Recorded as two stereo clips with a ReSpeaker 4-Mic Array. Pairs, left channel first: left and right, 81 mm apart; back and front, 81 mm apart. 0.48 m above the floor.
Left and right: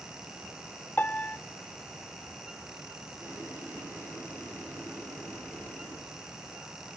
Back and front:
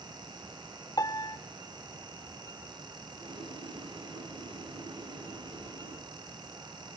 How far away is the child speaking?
I don't hear a child speaking.